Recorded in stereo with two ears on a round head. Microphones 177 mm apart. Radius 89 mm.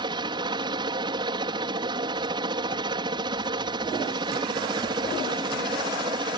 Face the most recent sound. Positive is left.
turn(degrees=-25)  # may be behind; listen again after turning